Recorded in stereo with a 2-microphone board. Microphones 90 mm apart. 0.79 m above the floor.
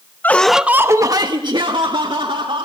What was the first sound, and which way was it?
Laughter, 20° left (ahead or behind).